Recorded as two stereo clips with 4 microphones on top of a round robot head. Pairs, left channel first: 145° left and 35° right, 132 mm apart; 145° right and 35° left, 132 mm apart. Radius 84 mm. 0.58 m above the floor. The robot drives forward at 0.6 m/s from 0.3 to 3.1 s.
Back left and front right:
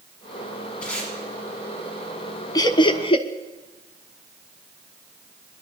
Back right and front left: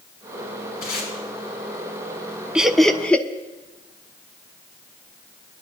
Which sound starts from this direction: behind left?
Laughter, at 2.5 s.